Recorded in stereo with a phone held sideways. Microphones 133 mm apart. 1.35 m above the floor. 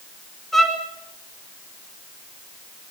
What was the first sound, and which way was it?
A violin, centre (ahead or behind).